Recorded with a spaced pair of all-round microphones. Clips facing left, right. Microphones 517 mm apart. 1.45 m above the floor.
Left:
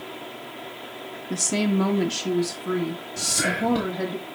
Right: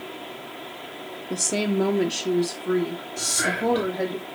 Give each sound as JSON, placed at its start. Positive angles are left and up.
{"t": 1.3, "sound": "a woman speaking", "side_deg": 15, "distance_m": 0.7}
{"t": 3.2, "sound": "whispering", "side_deg": 50, "distance_m": 1.0}